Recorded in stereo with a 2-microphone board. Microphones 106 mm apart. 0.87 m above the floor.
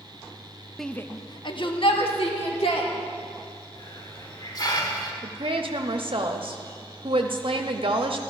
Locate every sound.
0.8 s a shout: centre (ahead or behind), 0.6 m; by 2.9 s 70° left (ahead or behind), 2.5 m
3.8 s a hiss: 40° left (ahead or behind), 1.7 m
5.2 s a woman speaking: 60° right (ahead or behind), 0.9 m